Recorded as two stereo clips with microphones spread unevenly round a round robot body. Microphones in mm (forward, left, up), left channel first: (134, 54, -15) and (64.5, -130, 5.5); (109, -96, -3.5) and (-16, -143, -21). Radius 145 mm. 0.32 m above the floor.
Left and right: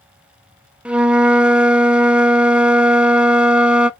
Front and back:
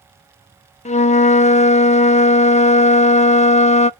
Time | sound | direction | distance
0.8 | a flute | 25° right | 0.5 m